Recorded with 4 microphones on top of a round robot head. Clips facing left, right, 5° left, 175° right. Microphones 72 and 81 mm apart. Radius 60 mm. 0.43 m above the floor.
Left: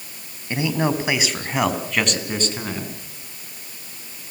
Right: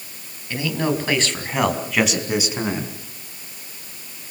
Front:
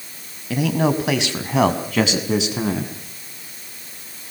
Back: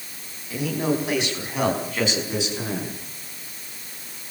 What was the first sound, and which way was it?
A man speaking, 25° left.